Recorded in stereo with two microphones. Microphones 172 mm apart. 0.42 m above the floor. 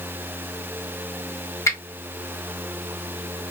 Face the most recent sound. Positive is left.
turn(degrees=20)  # may be behind; listen again after turning